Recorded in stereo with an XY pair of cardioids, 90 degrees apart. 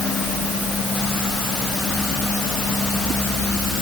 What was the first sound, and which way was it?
Only background noise.